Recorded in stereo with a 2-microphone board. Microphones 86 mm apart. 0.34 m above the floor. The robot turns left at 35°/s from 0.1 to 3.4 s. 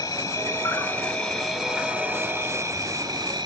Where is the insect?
50° left, 1.1 m; by 3.5 s 70° right, 1.1 m.